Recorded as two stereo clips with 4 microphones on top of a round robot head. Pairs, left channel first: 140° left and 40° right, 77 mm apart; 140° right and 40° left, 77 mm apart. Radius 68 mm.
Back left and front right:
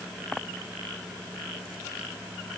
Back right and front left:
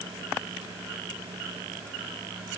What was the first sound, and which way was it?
Only background noise.